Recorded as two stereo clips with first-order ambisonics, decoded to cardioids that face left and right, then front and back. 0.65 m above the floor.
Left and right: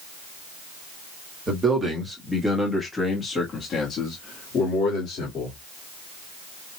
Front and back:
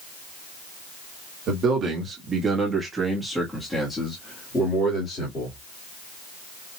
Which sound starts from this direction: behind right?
A man speaking, at 1.5 s.